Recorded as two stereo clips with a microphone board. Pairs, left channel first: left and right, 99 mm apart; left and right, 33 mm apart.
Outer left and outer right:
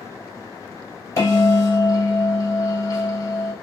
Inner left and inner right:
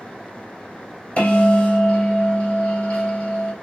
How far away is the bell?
About 2.0 m.